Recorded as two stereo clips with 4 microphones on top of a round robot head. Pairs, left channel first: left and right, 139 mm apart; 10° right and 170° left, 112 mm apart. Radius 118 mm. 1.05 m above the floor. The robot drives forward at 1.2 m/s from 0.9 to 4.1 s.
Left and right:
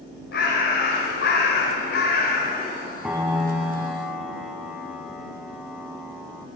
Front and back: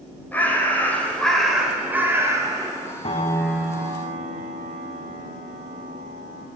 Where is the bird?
65° left, 2.5 m; by 2.9 s 120° left, 3 m.